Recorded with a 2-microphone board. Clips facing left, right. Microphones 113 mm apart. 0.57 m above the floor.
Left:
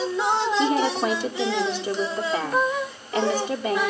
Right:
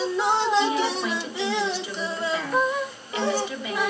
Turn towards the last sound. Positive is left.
turn(degrees=45)  # may be behind; listen again after turning